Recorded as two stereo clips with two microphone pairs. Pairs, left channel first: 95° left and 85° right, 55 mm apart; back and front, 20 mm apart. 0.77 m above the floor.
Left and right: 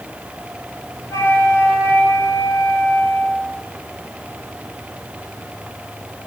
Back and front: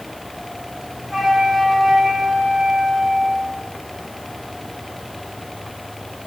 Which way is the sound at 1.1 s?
80° left.